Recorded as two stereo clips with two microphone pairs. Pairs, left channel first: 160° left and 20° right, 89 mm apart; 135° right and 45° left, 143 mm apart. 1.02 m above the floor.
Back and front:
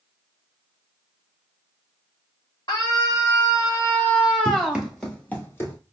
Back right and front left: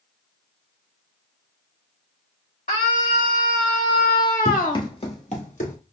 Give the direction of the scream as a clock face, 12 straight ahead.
5 o'clock.